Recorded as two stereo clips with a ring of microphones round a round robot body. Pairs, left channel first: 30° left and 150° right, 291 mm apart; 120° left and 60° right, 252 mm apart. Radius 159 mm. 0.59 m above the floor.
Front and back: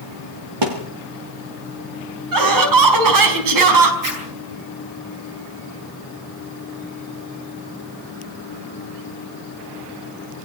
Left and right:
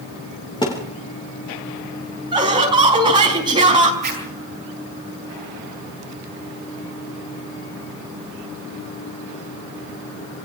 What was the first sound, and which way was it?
A thud, 165° right.